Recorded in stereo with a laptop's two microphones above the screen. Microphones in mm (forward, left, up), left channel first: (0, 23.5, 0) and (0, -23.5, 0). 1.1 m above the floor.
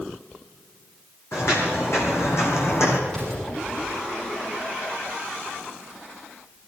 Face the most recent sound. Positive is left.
turn(degrees=20)  # may be behind; listen again after turning